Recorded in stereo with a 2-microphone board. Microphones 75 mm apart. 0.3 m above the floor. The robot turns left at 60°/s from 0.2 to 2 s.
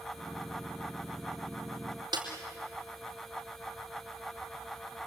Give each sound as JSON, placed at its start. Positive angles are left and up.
{"t": 2.1, "sound": "a snare drum", "side_deg": -85, "distance_m": 4.5}